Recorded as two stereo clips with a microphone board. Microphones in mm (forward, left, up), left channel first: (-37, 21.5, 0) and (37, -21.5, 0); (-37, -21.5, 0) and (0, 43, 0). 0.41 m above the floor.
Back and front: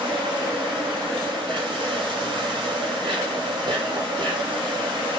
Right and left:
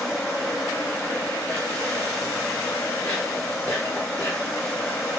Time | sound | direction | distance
0.0 | an insect | 60° right | 2 m